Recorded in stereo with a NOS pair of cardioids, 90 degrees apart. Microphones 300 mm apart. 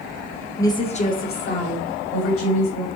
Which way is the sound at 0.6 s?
10° left.